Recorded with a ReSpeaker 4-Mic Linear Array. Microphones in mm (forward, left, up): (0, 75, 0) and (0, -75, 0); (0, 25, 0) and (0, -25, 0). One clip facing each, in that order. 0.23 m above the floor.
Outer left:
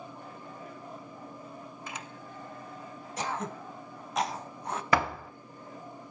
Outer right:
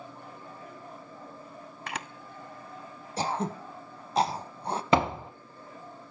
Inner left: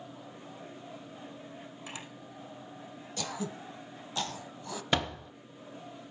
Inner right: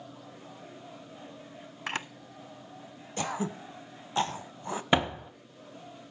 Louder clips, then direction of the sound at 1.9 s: Outer right 7 dB, inner right 12 dB; 65° right (ahead or behind).